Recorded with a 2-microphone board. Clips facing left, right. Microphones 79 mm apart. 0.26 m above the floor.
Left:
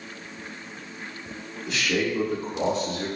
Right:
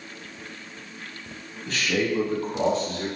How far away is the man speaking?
About 1.9 m.